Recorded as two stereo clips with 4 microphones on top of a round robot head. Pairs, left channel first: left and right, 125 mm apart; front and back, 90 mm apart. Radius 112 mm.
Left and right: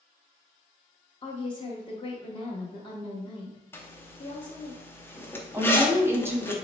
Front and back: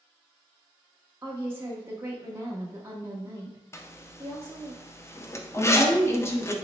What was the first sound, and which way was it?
A woman speaking, 120° left.